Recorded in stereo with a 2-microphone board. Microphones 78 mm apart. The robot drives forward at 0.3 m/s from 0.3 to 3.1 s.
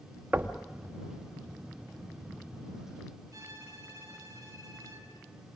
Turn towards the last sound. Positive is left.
turn(degrees=-50)  # may be behind; listen again after turning